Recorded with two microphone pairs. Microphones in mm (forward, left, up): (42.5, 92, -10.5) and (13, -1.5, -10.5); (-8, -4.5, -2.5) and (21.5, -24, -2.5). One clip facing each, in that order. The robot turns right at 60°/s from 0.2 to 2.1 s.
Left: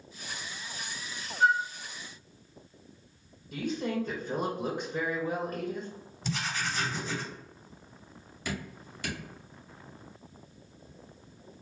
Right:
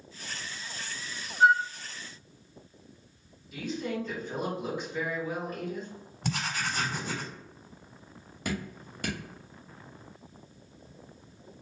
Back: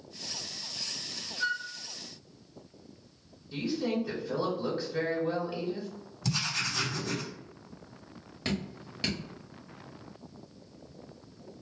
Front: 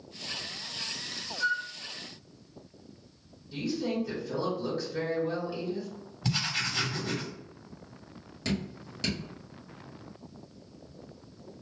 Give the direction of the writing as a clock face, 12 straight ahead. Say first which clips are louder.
Right 1 dB, front 1 dB; 3 o'clock.